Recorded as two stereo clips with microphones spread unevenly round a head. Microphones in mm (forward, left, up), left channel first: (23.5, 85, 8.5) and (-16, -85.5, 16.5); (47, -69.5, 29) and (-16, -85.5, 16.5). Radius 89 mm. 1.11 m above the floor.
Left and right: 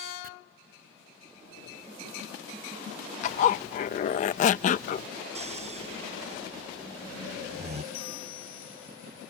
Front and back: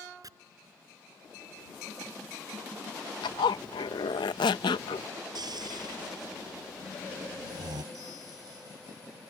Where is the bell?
70° left.